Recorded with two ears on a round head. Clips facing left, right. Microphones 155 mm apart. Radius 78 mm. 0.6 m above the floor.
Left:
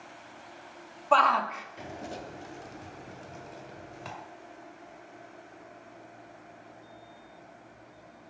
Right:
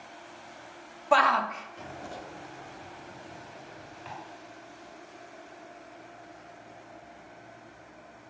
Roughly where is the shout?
Centre.